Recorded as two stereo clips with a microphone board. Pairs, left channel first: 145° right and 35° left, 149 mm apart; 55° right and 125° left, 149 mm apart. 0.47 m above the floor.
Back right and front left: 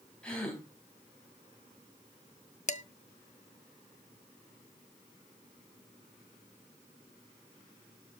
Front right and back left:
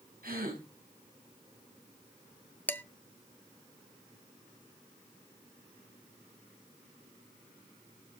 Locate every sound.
0.2 s a gasp: 130° left, 3.5 m
2.7 s dishes clattering: 130° right, 0.6 m